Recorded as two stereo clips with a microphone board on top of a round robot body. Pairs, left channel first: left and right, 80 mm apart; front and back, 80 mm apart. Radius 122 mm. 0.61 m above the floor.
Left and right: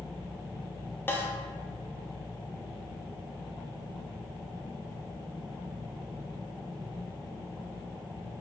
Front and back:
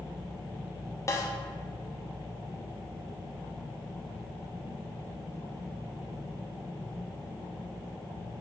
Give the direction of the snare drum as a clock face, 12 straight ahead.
11 o'clock.